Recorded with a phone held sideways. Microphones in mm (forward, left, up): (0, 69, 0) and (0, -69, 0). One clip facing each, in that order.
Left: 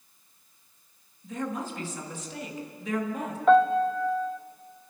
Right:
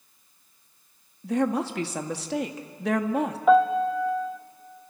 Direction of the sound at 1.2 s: 75° right (ahead or behind).